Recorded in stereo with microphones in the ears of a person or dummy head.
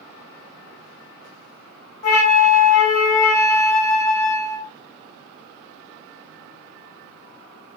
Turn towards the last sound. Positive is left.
turn(degrees=50)  # may be behind; listen again after turning